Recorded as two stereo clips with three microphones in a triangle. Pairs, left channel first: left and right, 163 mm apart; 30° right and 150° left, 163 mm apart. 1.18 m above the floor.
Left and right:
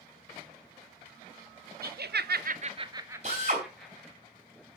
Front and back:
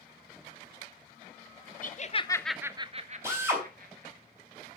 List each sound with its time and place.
1.8 s laughter: 65° right, 0.8 m; by 4.2 s 175° left, 1.8 m
3.2 s a drill: 135° right, 3.5 m